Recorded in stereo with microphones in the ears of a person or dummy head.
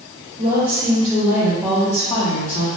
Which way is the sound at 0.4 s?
30° right (ahead or behind).